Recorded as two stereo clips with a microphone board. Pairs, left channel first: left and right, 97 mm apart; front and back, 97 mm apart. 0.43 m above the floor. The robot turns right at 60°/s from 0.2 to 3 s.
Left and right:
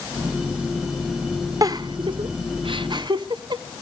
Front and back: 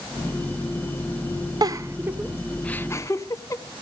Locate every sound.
1.6 s a giggle: 140° right, 0.5 m; by 3.8 s 55° right, 0.5 m